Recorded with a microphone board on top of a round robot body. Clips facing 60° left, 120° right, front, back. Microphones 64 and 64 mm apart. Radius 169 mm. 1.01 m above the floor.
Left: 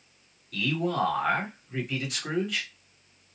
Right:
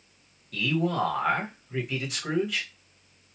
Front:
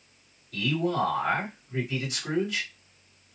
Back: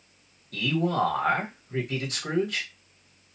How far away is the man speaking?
About 1.4 m.